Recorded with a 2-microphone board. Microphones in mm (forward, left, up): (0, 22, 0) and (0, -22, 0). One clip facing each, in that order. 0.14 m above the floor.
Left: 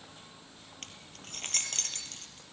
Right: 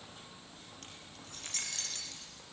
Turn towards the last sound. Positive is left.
turn(degrees=60)  # may be behind; listen again after turning